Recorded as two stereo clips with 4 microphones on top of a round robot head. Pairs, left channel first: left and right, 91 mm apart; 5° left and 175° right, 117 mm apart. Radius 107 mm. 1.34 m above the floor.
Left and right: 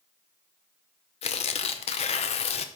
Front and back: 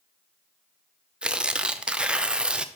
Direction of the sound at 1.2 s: 100° left.